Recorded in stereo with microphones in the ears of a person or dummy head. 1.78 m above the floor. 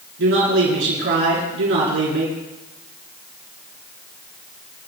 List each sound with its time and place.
0.2 s a man speaking: 65° right (ahead or behind), 5.5 m